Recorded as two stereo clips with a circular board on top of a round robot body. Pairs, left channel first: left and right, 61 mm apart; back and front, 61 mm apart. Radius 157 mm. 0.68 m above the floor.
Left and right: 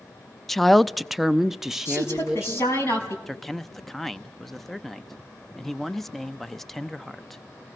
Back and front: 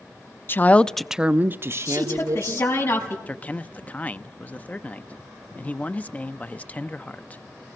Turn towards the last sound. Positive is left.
turn(degrees=170)